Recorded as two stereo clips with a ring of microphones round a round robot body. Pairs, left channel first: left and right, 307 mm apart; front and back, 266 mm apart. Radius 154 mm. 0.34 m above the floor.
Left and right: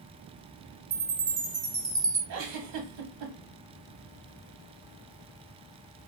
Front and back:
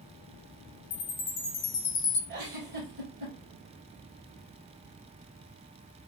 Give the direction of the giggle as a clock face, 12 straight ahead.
4 o'clock.